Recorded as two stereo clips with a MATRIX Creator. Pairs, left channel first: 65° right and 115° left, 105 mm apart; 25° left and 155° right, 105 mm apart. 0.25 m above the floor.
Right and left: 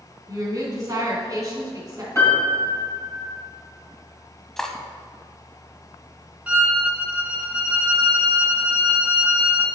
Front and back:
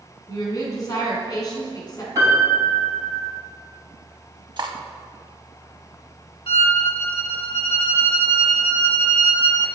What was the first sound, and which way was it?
A woman speaking, 65° left.